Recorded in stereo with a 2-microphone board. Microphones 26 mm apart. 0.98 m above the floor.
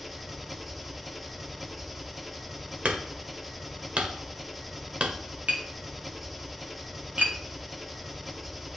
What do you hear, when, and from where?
0.0 s an engine running: centre (ahead or behind), 0.7 m
2.9 s hammering: 60° right (ahead or behind), 1.1 m
5.5 s tapping: 65° right (ahead or behind), 1.7 m